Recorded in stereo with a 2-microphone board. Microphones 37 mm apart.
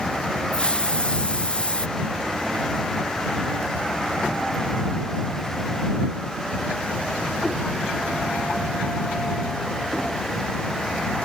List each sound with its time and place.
0.5 s a hiss: 25° left (ahead or behind)